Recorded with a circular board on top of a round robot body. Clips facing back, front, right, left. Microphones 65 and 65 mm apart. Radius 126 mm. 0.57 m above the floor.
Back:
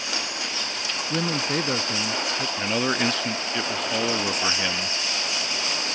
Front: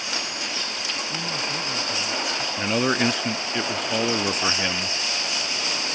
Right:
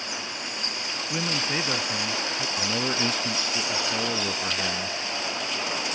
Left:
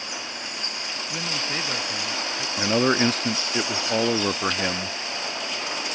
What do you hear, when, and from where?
1.1 s a man speaking: 170° right; by 2.5 s 175° right
2.6 s a man speaking: 80° left